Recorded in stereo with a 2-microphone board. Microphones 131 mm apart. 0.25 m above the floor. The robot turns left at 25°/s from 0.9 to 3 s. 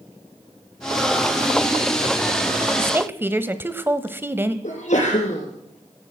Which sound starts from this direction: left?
A sneeze, at 4.6 s.